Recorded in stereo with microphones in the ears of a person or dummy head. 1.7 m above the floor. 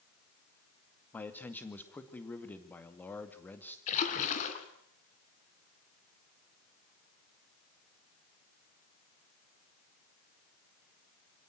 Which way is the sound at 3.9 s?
40° left (ahead or behind).